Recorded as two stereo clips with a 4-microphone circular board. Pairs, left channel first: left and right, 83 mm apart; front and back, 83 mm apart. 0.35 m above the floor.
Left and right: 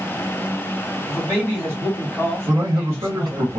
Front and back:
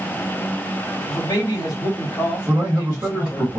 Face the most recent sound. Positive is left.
turn(degrees=-90)